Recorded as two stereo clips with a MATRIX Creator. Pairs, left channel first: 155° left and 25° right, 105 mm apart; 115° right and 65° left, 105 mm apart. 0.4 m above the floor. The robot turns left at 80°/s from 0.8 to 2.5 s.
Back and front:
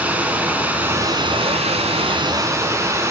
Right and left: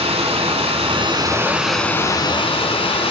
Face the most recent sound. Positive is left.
turn(degrees=-85)